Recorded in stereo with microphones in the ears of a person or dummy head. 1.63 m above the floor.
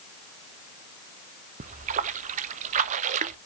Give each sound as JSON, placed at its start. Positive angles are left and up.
{"t": 1.6, "sound": "a splash", "side_deg": -40, "distance_m": 0.7}